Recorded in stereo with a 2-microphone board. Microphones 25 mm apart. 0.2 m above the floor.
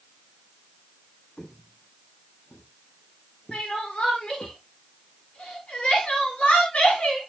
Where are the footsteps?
25° left (ahead or behind), 1.5 m; by 4.5 s 60° left (ahead or behind), 3 m.